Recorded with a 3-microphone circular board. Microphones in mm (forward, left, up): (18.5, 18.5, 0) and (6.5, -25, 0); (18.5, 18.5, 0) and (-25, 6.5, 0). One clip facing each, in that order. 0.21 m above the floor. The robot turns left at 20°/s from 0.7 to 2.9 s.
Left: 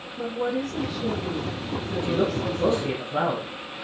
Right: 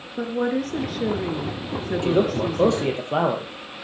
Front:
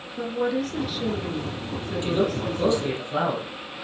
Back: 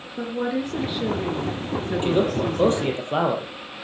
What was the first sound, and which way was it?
A woman speaking, 95° right.